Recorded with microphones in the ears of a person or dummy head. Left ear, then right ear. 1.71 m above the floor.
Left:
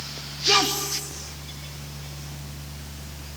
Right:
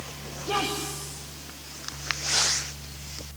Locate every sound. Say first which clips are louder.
0.4 s a woman speaking: left 8 dB; 45° left (ahead or behind), 2.5 m